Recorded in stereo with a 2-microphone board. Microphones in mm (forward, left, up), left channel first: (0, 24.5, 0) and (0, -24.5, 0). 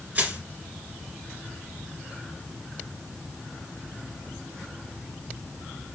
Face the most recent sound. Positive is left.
turn(degrees=-35)  # may be behind; listen again after turning